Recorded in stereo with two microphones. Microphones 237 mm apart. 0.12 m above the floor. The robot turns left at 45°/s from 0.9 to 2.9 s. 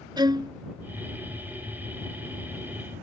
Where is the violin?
20° right (ahead or behind).